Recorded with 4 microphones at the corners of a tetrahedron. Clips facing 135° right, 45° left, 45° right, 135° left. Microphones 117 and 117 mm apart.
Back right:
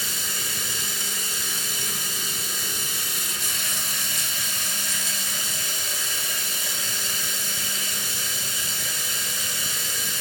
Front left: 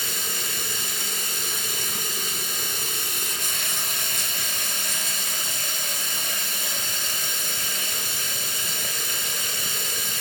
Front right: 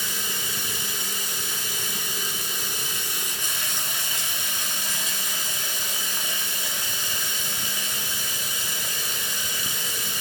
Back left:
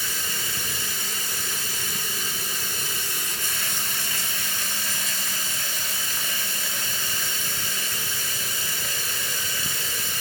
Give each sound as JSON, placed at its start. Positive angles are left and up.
{"t": 0.0, "sound": "running water", "azimuth_deg": 25, "distance_m": 1.4}